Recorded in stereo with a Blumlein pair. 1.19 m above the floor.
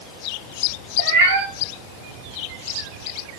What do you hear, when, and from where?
1.0 s a cat meowing: 55° right, 3 m